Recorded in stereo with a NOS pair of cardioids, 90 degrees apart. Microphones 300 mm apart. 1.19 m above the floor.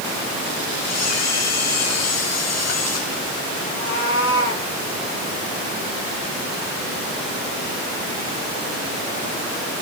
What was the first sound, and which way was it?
A camera shutter, 60° left.